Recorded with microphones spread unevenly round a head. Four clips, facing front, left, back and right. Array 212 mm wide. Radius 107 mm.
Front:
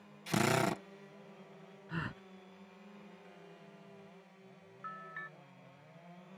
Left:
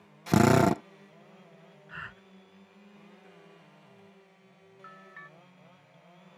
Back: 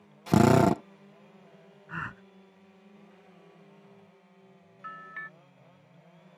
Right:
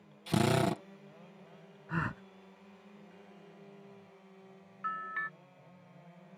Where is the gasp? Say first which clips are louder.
Right 8 dB, back 4 dB; 80° right.